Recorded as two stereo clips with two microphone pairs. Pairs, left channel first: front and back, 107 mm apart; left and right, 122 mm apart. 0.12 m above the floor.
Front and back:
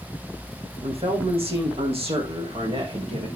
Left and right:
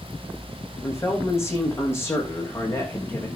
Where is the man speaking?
155° left, 5.5 m; by 3.3 s 160° left, 7 m.